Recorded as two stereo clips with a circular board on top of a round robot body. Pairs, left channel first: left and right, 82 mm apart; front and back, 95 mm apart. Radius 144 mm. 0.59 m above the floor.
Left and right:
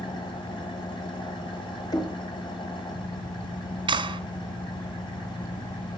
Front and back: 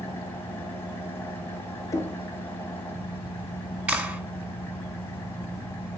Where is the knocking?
55° left, 1.4 m.